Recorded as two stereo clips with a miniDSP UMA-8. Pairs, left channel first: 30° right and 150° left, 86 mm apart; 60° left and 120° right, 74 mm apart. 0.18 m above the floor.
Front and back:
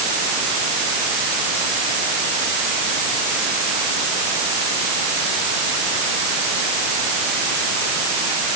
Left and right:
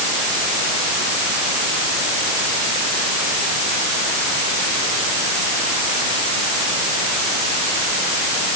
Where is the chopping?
No chopping in this recording.